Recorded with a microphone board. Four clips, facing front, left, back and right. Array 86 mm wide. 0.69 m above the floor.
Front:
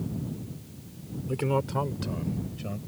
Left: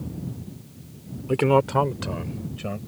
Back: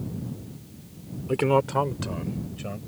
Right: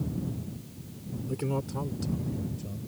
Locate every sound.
1.3 s a man speaking: 120° left; by 2.8 s 100° left